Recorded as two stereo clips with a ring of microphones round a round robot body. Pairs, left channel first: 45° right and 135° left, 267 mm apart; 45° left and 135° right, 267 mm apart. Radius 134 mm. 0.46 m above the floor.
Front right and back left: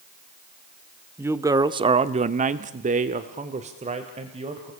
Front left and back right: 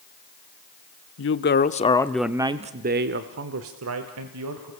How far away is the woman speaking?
About 1.1 m.